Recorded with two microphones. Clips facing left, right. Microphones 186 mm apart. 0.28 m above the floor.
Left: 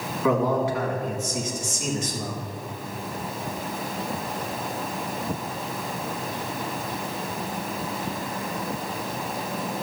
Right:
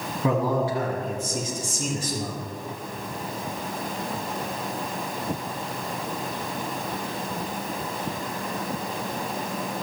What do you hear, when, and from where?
0.2 s a man speaking: 35° right (ahead or behind), 2 m